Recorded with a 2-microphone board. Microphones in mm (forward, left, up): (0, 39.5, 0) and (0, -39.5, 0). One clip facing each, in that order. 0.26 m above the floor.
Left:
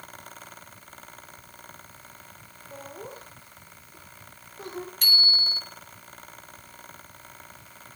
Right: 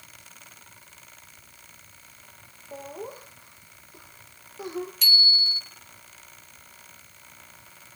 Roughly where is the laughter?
Centre.